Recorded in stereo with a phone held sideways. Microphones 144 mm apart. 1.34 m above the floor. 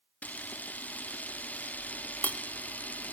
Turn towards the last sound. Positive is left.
turn(degrees=10)  # may be behind; listen again after turning